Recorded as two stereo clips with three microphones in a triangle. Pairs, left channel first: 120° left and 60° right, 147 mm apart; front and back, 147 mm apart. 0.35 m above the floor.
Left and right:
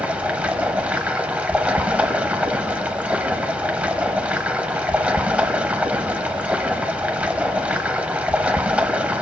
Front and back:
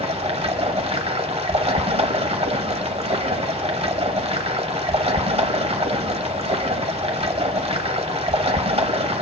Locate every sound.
0.0 s running water: 140° right, 1.0 m